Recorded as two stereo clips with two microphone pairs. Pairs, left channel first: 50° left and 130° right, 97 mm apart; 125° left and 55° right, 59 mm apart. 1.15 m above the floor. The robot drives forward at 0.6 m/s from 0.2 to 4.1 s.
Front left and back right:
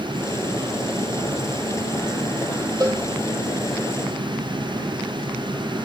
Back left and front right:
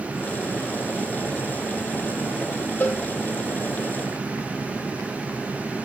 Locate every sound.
2.8 s a cowbell: 175° right, 6.5 m